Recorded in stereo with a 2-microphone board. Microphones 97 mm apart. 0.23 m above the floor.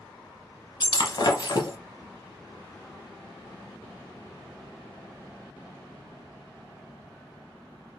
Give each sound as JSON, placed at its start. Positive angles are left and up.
{"t": 0.8, "sound": "breaking glass", "side_deg": 55, "distance_m": 0.8}